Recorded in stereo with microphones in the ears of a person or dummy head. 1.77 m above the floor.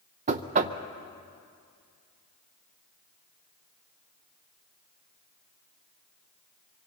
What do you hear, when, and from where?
0.3 s knocking: 35° right (ahead or behind), 0.6 m